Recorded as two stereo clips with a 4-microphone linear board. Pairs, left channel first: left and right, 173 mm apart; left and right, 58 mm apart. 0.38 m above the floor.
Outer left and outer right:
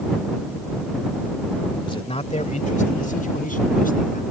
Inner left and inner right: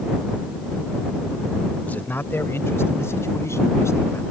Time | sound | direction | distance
1.8 | a man speaking | 30° left (ahead or behind) | ?